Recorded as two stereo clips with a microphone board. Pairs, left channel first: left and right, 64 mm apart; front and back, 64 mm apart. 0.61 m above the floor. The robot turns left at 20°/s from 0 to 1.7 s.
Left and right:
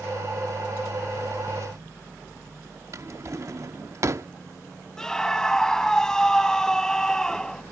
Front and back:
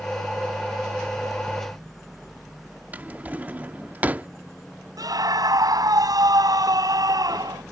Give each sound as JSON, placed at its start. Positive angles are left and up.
{"t": 2.9, "sound": "a drawer", "azimuth_deg": -120}
{"t": 5.0, "sound": "a scream", "azimuth_deg": 170}